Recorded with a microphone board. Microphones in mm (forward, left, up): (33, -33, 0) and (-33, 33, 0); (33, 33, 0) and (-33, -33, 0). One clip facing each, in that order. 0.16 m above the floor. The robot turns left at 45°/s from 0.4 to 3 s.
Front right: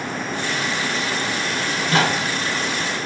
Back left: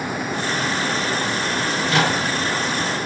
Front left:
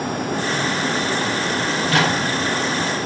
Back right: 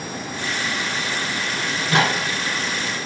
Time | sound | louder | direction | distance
1.7 | a microwave | front right 1 dB, even | 65° right | 1.5 m